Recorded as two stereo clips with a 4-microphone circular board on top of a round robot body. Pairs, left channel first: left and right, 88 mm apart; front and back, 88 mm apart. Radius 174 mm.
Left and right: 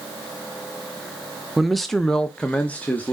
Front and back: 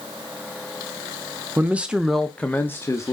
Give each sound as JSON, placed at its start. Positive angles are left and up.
{"t": 1.6, "sound": "a man speaking", "azimuth_deg": -175, "distance_m": 1.1}